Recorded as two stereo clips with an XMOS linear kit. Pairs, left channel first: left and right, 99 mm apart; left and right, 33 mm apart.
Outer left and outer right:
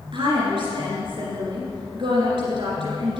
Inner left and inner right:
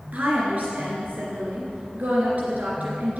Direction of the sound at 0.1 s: 60° right (ahead or behind).